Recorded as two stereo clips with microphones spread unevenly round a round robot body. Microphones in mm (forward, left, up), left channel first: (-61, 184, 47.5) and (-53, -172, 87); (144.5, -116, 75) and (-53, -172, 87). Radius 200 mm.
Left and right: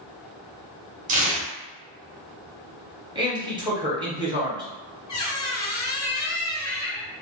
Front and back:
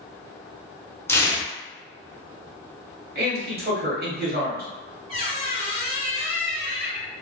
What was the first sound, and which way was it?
Tearing paper, 35° right.